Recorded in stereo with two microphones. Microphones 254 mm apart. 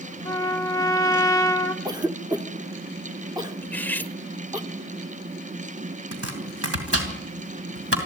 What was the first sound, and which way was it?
A trumpet, 15° left (ahead or behind).